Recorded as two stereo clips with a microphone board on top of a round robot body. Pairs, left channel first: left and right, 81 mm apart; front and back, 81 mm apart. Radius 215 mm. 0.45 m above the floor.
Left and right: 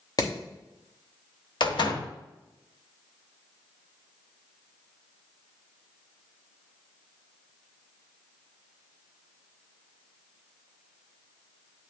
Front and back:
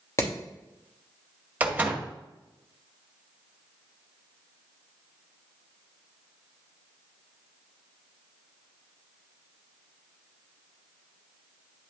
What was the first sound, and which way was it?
Hammering, 55° left.